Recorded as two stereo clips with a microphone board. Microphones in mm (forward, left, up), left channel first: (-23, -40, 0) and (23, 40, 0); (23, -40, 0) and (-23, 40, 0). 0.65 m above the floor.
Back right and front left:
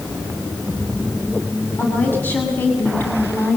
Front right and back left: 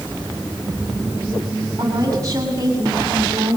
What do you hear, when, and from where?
1.8 s a woman speaking: 170° left, 6.5 m